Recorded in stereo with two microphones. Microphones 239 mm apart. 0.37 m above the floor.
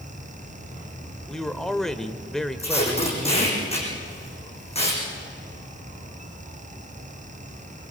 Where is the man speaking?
Centre (ahead or behind), 1.0 m.